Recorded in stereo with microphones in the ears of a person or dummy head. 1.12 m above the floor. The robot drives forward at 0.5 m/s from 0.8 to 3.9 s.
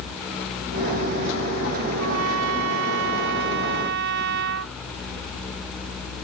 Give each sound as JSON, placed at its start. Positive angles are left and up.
{"t": 2.0, "sound": "a trumpet", "side_deg": -75}